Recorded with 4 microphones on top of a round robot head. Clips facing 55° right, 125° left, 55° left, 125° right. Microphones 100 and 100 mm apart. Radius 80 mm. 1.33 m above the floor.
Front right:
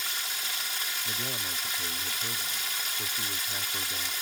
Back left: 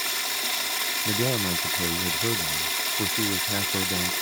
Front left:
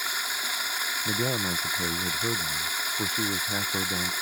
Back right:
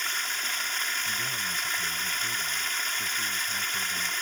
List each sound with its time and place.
0.0 s running water: 135° left
1.1 s a man speaking: 100° left